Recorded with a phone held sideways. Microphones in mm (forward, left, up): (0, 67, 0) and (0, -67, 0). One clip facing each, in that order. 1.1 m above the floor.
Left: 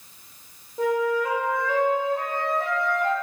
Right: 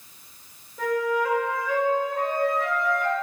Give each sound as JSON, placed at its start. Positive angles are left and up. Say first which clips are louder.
{"t": 0.8, "sound": "a flute", "louder": "left 2 dB", "side_deg": 25, "distance_m": 1.6}